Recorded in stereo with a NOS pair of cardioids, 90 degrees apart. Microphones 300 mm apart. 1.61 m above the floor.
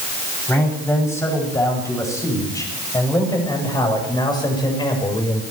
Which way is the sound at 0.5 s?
10° left.